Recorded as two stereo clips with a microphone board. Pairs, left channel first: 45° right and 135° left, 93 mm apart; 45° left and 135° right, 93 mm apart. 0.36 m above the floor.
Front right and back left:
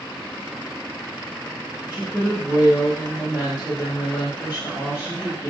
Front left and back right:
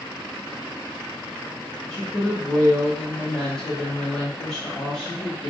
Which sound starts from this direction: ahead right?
A woman speaking, at 1.9 s.